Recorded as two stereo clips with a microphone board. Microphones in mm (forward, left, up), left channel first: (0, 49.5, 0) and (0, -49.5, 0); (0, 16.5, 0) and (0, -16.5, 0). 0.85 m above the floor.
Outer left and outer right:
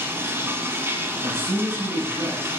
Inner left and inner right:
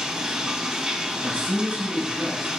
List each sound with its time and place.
0.0 s running water: 25° right (ahead or behind), 0.9 m
1.2 s a man speaking: 65° right (ahead or behind), 3.5 m